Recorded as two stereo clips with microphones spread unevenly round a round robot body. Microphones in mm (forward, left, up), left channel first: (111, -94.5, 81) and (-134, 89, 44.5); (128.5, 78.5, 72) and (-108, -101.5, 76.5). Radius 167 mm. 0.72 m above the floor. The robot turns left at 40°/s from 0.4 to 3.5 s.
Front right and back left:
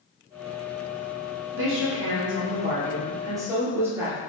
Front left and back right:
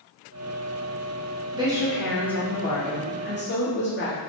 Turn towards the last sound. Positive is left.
turn(degrees=70)